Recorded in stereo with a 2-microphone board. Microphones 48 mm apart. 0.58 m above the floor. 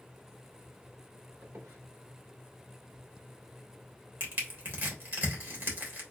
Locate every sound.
1.4 s a squeak: 70° right (ahead or behind), 1.4 m
4.2 s crushing: 45° right (ahead or behind), 2 m